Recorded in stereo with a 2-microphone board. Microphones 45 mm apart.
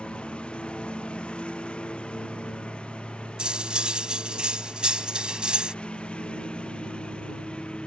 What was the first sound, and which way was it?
A lawn mower, 25° left (ahead or behind).